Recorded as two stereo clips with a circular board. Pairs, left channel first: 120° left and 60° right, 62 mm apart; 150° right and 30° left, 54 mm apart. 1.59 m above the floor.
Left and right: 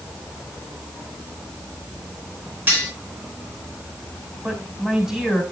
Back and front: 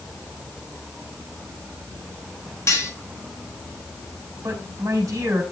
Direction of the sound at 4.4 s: 20° left.